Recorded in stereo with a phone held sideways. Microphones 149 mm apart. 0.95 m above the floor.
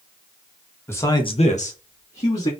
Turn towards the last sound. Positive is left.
turn(degrees=35)  # may be behind; listen again after turning